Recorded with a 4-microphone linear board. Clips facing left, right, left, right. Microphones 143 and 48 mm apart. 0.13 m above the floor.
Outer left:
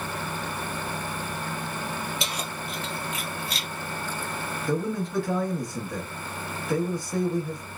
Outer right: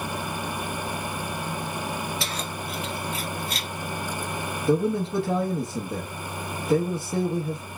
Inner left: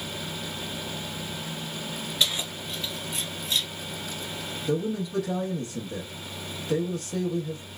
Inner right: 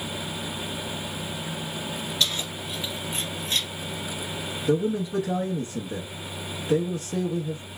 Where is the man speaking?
20° right (ahead or behind), 1.2 m.